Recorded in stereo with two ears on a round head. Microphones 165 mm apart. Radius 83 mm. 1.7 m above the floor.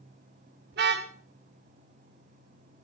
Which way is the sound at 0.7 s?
60° right (ahead or behind).